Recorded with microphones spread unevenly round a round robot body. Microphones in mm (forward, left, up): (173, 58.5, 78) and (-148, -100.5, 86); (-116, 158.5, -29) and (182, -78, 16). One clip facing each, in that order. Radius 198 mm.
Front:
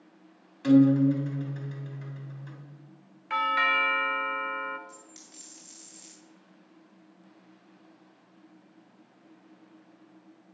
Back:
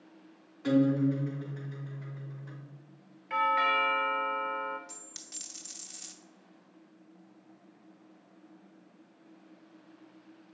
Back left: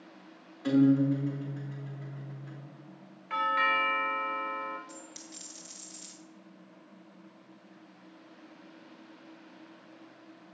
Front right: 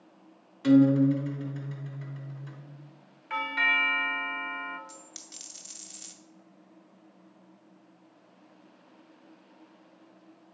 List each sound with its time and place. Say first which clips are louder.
0.6 s a guitar: front 6 dB, front right 4 dB; 10° right, 3 m
3.3 s a doorbell: back 1 dB, back left 2 dB; 50° left, 0.8 m
4.9 s a dropped coin: front 2 dB, back left 4 dB; 100° right, 0.6 m